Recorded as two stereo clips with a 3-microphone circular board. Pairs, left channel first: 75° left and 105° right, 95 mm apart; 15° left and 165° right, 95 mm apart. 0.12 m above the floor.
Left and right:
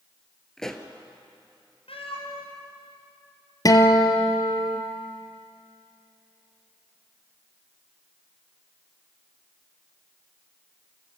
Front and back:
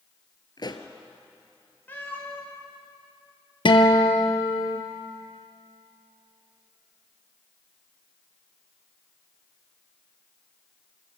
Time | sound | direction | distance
0.6 | a pop | 10° right | 1.4 m
1.9 | a cat meowing | 85° left | 5.5 m
3.6 | a guitar | 30° left | 1.6 m